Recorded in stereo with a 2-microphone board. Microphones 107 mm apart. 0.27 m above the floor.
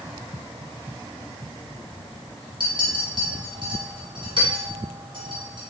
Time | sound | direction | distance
2.6 | a clink | 50° right (ahead or behind) | 1.4 m